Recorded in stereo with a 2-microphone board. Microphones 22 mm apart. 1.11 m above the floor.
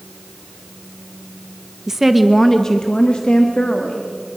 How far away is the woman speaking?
About 0.9 m.